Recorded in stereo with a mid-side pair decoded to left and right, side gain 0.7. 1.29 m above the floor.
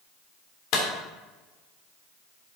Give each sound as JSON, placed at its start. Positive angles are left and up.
{"t": 0.7, "sound": "a clap", "azimuth_deg": 60, "distance_m": 3.0}